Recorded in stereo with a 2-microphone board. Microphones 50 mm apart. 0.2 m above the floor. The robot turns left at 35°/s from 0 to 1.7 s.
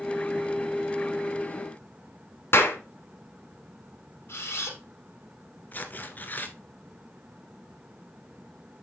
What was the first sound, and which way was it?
A clap, 55° left (ahead or behind).